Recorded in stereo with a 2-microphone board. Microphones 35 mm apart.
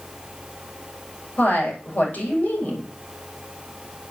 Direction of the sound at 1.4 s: 50° left (ahead or behind).